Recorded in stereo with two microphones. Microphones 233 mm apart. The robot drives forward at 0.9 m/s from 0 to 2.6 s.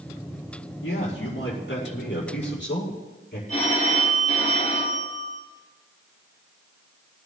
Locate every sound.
0.8 s a man speaking: 65° left (ahead or behind), 5.5 m; by 3.4 s 50° left (ahead or behind), 6 m
3.5 s a phone ringing: 30° left (ahead or behind), 6 m